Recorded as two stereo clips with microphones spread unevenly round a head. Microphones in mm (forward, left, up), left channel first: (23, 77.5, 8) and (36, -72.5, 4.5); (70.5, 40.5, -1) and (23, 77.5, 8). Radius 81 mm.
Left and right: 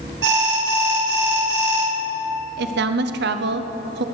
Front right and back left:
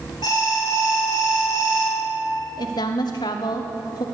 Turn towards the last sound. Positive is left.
turn(degrees=-75)